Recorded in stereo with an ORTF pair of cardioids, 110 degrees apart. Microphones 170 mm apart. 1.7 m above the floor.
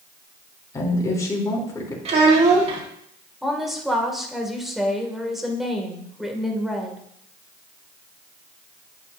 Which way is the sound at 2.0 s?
40° right.